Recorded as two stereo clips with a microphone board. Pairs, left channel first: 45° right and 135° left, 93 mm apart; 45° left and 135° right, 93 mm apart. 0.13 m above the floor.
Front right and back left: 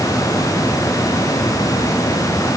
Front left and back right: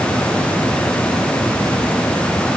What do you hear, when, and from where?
Only background noise.